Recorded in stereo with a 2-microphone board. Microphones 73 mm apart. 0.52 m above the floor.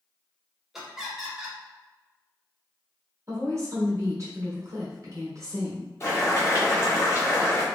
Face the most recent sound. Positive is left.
turn(degrees=35)  # may be behind; listen again after turning